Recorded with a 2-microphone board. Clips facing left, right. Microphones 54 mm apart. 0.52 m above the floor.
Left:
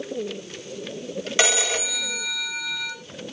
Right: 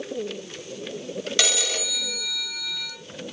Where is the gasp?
No gasp in this recording.